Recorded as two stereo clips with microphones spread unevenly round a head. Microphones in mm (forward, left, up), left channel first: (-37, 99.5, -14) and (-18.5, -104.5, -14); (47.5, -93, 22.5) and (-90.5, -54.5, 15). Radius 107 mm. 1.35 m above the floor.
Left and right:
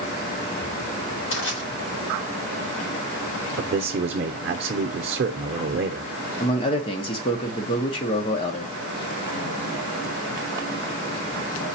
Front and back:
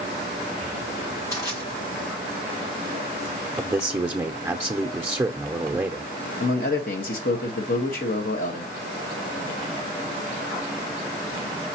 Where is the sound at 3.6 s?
120° right, 0.6 m.